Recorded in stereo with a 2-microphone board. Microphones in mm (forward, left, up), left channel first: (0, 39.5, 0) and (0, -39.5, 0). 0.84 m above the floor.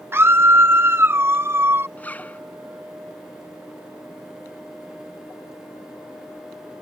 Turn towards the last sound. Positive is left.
turn(degrees=20)  # may be behind; listen again after turning